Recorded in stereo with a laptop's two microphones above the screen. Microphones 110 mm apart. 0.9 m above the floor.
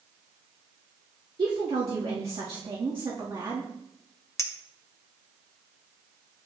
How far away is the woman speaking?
About 1.7 m.